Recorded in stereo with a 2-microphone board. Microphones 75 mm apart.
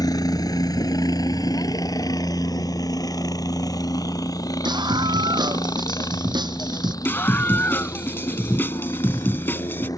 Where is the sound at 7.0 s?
30° left (ahead or behind).